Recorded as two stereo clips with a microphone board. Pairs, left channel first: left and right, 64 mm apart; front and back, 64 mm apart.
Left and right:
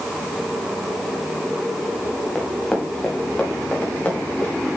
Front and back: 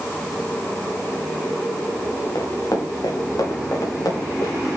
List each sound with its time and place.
2.4 s running footsteps: 15° left, 6.5 m; by 4.5 s 25° left, 8.5 m